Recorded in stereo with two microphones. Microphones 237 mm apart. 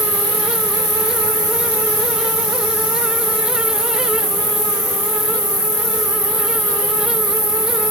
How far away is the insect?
About 2.5 m.